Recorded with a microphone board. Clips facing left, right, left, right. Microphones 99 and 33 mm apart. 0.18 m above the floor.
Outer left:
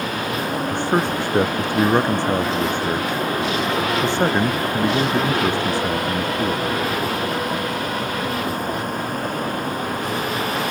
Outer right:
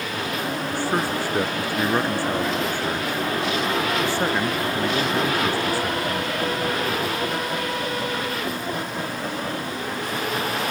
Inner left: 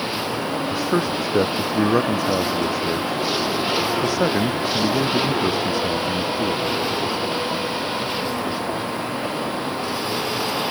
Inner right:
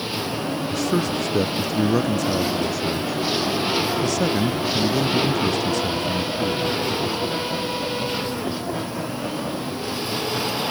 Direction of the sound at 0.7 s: 20° left (ahead or behind).